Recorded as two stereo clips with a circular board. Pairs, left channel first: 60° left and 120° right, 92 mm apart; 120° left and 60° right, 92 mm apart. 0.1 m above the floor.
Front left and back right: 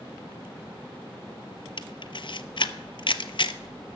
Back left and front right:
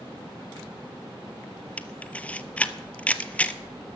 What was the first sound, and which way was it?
A camera shutter, 45° left.